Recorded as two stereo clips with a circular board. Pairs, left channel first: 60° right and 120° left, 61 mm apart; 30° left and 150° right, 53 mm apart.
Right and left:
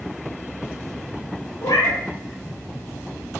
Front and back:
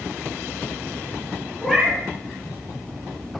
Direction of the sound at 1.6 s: 60° right.